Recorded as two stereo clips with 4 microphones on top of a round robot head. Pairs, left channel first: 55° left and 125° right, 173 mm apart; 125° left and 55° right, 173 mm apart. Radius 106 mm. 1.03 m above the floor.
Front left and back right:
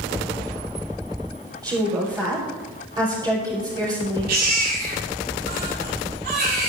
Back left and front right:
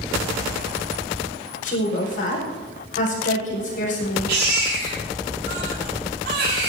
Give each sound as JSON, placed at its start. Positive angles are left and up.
{"t": 1.6, "sound": "a woman speaking", "azimuth_deg": 165, "distance_m": 5.5}
{"t": 4.3, "sound": "a baby crying", "azimuth_deg": -90, "distance_m": 6.0}